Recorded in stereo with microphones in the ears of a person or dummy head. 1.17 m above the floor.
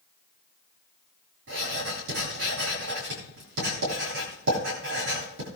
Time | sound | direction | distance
1.5 | writing | 65° right (ahead or behind) | 8 m